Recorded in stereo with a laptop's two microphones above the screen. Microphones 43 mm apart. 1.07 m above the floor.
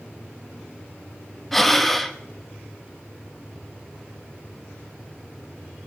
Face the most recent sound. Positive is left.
turn(degrees=5)  # may be behind; listen again after turning